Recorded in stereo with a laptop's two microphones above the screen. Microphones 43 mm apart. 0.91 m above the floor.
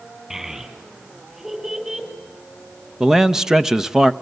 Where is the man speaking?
10° right (ahead or behind), 0.6 m.